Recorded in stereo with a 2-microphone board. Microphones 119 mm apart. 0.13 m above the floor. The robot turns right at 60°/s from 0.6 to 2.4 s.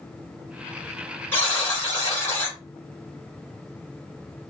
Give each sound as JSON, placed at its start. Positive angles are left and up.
{"t": 1.3, "sound": "a buzzer", "side_deg": 20, "distance_m": 1.7}